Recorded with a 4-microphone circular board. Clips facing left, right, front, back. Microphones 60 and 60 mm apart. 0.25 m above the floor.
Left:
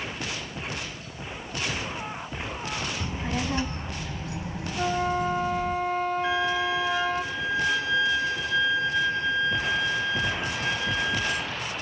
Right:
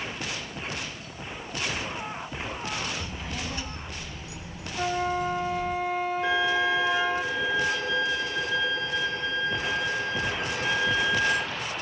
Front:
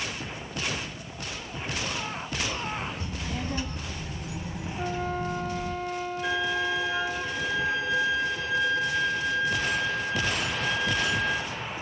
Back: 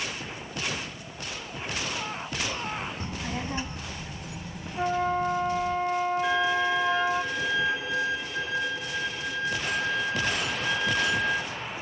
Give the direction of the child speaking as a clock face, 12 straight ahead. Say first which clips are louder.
Left 5 dB, back 1 dB; 7 o'clock.